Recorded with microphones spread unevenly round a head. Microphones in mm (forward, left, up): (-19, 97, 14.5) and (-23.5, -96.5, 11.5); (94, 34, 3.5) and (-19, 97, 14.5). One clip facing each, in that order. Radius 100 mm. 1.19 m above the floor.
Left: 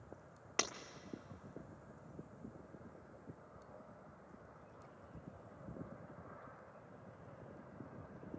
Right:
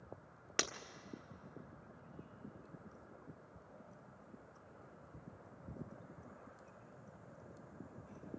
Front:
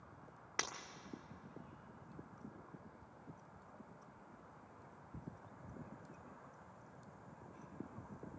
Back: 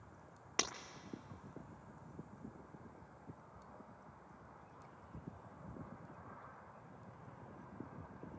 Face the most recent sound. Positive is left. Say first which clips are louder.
# even, back 3 dB
turn(degrees=-155)